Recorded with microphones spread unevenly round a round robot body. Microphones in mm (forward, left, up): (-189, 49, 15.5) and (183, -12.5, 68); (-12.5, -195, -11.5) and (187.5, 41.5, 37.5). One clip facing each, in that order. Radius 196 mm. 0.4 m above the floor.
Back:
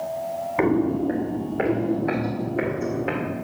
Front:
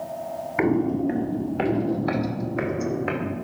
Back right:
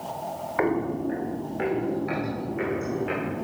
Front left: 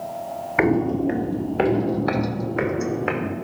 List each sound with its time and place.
0.6 s footsteps: 65° left, 0.5 m; by 3.3 s 45° left, 2 m